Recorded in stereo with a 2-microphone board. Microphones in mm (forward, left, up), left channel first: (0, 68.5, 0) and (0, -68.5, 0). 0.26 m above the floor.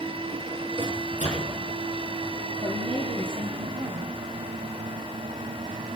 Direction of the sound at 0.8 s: 65° right (ahead or behind).